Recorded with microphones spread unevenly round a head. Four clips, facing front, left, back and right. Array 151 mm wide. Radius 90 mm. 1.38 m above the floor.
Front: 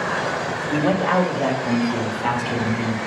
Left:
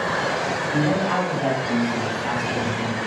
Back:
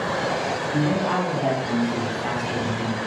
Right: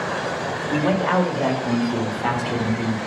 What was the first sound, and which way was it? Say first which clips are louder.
A man speaking: right 3 dB, front 5 dB; 35° right.